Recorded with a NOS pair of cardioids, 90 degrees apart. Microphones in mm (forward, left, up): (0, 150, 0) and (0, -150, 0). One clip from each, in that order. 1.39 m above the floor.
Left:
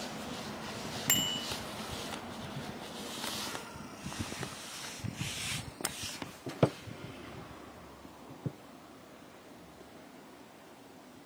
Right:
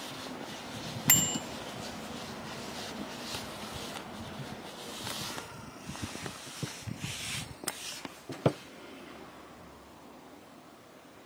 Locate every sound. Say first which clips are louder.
1.1 s a bicycle bell: right 3 dB; 25° right, 2 m